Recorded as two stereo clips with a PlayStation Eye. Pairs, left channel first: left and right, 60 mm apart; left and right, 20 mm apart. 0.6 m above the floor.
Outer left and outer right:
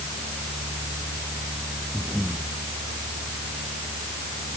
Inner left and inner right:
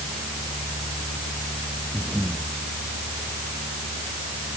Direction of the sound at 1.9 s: 5° left (ahead or behind).